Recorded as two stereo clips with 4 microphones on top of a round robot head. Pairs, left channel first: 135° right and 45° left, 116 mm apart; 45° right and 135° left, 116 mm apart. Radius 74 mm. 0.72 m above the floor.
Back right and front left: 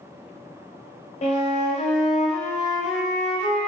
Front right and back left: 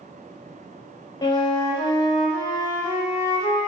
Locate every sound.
1.2 s a flute: 105° right, 0.7 m